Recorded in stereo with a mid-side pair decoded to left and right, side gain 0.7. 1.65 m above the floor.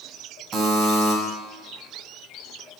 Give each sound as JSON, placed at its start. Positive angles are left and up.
{"t": 0.5, "sound": "a buzzer", "azimuth_deg": -30, "distance_m": 0.9}